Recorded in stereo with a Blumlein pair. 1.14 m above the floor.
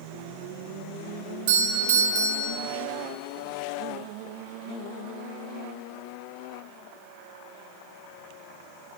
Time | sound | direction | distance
1.5 | a doorbell | 55° right | 2.5 m